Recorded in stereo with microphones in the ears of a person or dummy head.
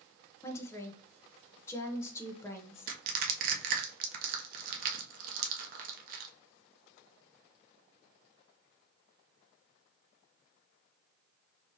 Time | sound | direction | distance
0.4 | a woman speaking | 5° left (ahead or behind) | 0.9 m
2.9 | crushing | 50° right (ahead or behind) | 0.8 m